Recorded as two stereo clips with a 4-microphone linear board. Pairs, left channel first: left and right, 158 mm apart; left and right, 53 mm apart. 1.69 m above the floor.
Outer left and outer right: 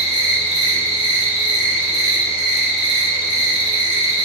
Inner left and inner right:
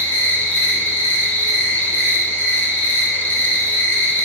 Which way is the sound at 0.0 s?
35° left (ahead or behind).